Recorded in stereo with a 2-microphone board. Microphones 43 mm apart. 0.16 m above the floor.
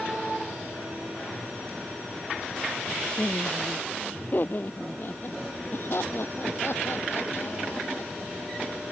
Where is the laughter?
35° left (ahead or behind); by 8.7 s 65° left (ahead or behind).